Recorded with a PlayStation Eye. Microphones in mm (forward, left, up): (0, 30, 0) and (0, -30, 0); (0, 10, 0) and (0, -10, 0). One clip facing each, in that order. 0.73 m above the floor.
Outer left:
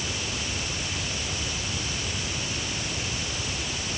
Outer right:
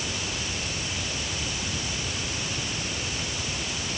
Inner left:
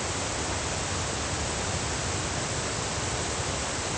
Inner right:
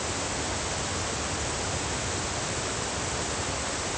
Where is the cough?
I don't hear a cough.